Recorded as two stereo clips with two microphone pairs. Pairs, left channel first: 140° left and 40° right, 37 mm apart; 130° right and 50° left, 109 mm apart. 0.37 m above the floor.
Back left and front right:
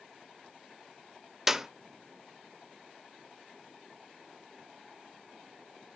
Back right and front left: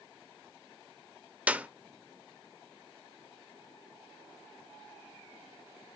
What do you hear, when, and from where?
1.5 s a clap: 15° left, 0.6 m